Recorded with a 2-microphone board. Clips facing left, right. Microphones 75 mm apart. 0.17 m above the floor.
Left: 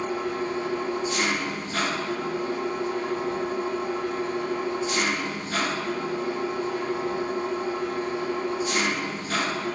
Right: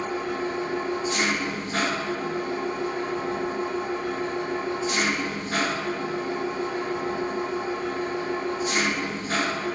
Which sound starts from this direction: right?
An engine running, at 0.0 s.